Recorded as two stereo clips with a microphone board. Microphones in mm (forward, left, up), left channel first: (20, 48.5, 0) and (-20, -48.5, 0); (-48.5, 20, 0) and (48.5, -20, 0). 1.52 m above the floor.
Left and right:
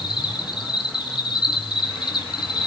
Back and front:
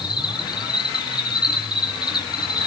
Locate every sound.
0.0 s an insect: 110° left, 1.9 m